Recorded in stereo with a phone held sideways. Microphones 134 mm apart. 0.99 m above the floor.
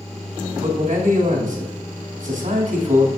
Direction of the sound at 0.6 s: 70° right (ahead or behind).